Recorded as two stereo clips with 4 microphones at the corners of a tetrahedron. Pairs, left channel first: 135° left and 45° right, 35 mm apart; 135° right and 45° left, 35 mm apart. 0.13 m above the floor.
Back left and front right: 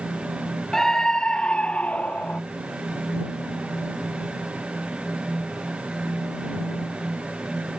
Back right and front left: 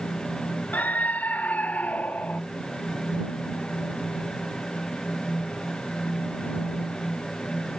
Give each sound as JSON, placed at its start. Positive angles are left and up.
{"t": 0.7, "sound": "a scream", "azimuth_deg": -150}